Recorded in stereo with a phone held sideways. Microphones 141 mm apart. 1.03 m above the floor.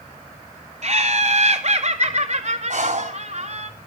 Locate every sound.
0.8 s laughter: 60° right (ahead or behind), 2.5 m
2.7 s breathing: 70° right (ahead or behind), 3 m